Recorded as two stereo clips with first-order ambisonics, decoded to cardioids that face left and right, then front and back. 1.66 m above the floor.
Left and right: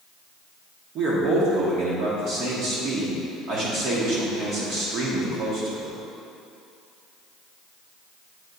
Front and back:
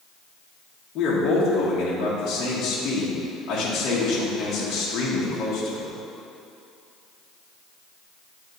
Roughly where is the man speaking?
Ahead right.